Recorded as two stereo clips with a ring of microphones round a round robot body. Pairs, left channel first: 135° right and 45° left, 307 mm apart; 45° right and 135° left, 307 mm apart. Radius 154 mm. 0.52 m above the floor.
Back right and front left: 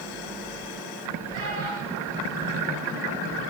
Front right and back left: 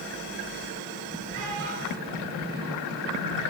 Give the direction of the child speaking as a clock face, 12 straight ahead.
9 o'clock.